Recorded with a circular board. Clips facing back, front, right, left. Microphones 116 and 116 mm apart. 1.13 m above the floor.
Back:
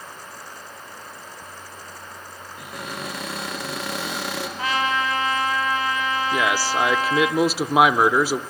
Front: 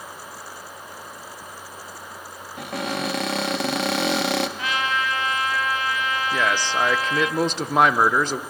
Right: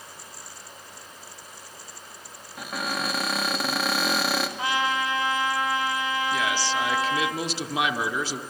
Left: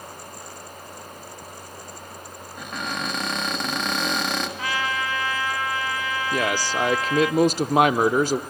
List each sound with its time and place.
2.6 s a cupboard door: 5° right, 1.1 m
4.6 s a trumpet: 140° right, 1.2 m
6.3 s a man speaking: 100° left, 0.5 m